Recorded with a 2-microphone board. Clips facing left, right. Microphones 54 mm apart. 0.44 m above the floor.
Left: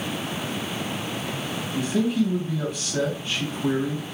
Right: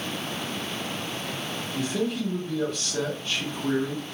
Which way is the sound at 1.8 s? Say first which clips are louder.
Left 5 dB; 15° left (ahead or behind).